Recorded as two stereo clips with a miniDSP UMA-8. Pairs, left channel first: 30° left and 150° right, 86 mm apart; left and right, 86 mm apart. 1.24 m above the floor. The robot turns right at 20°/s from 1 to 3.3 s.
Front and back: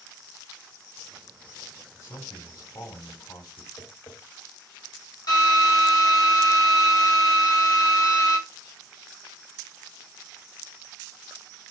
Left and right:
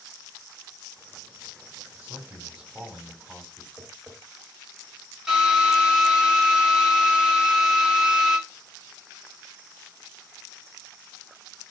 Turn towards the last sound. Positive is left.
turn(degrees=-10)